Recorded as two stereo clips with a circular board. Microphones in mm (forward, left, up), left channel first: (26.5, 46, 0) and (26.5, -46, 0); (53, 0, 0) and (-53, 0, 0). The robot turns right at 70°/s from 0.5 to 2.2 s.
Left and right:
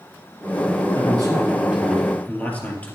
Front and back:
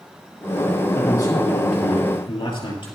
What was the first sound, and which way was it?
A man speaking, 65° right.